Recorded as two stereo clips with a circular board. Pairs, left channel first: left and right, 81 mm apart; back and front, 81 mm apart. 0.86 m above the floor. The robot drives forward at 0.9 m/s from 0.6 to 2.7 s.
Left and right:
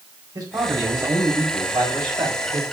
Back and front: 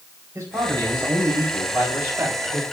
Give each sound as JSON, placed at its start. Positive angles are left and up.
{"t": 0.3, "sound": "a man speaking", "azimuth_deg": -50, "distance_m": 5.0}